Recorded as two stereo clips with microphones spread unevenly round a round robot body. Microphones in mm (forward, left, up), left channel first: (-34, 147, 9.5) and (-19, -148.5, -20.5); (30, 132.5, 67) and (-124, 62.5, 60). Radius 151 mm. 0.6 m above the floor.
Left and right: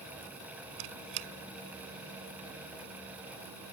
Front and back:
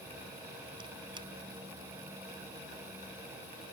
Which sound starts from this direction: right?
A squeak, at 0.8 s.